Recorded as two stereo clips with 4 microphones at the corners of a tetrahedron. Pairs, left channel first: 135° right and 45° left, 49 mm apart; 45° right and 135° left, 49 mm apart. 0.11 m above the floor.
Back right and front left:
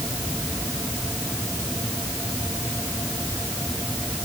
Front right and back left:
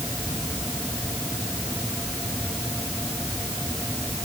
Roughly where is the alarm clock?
No alarm clock in this recording.